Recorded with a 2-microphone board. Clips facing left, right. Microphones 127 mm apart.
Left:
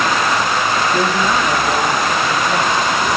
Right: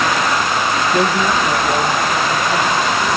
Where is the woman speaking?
20° right (ahead or behind), 1.1 m; by 3.1 s 25° left (ahead or behind), 4 m.